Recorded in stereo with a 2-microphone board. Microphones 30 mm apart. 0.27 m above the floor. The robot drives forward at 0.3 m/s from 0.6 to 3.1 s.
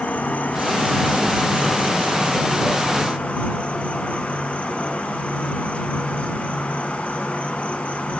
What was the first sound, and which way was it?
An insect, 60° left (ahead or behind).